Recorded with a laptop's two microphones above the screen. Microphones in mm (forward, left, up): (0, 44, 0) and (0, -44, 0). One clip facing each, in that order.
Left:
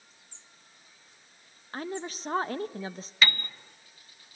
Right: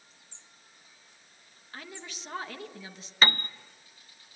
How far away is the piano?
About 0.8 m.